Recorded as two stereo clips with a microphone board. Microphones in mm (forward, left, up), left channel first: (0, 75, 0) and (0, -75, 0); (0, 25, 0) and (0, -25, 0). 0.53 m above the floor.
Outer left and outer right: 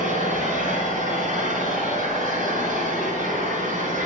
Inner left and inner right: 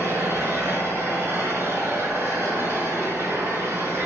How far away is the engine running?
About 6.5 m.